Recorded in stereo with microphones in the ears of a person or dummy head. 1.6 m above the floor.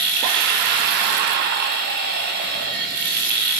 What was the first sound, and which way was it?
Running water, 55° right (ahead or behind).